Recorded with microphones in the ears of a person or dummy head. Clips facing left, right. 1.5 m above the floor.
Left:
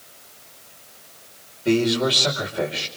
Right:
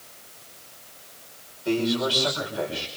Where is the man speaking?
30° left (ahead or behind), 5.5 m.